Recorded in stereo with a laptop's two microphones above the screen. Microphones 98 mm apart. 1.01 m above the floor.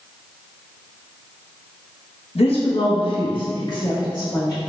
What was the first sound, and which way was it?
A woman speaking, 80° left.